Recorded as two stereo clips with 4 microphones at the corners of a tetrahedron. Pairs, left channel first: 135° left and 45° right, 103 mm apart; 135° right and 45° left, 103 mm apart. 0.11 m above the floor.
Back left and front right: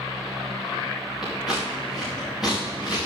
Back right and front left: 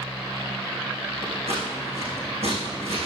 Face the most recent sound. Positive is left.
turn(degrees=40)